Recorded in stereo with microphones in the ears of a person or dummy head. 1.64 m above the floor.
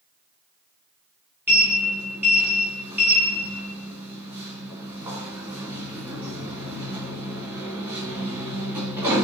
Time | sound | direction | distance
1.5 | a sliding door | 20° right (ahead or behind) | 1.6 m